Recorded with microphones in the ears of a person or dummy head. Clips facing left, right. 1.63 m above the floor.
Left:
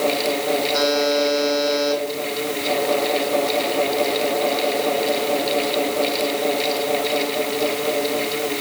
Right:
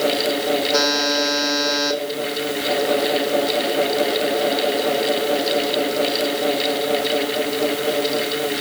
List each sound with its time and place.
0.7 s a buzzer: 75° right (ahead or behind), 3.5 m